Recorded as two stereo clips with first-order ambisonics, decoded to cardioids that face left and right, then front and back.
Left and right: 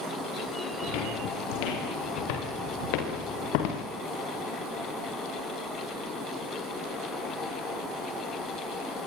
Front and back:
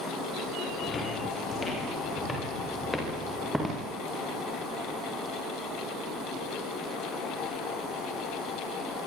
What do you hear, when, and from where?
0.8 s footsteps: 75° left, 10 m; by 3.9 s 90° left, 7 m